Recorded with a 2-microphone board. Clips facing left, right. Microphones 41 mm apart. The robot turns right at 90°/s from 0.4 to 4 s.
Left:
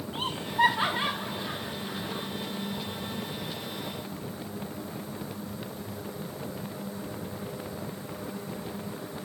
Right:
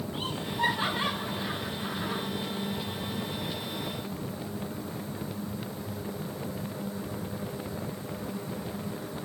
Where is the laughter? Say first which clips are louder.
Left 7 dB; 80° left, 6.5 m; by 2.2 s 80° right, 6.5 m.